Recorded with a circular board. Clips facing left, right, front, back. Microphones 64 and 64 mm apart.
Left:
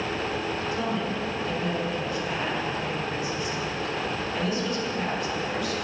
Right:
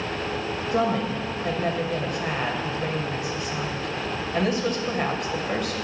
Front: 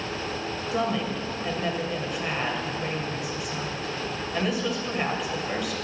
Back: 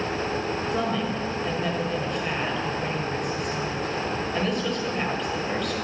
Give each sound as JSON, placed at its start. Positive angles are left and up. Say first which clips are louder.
{"t": 0.7, "sound": "a woman speaking", "louder": "right 9 dB, front 2 dB", "azimuth_deg": -85, "distance_m": 2.0}